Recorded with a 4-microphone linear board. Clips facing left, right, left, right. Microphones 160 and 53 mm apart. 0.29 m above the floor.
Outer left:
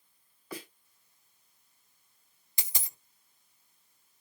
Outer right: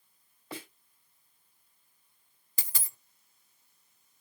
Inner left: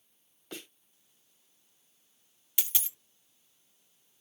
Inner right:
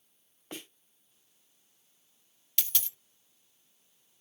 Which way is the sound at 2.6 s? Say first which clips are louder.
Outer left 1 dB, even; 20° left (ahead or behind).